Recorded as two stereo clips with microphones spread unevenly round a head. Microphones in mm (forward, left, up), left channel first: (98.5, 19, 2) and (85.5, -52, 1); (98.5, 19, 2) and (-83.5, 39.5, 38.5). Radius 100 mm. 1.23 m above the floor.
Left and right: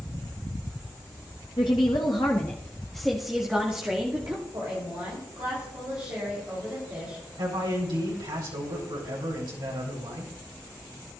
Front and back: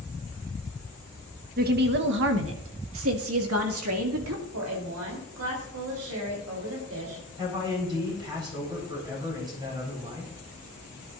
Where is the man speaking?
115° right, 4.5 m.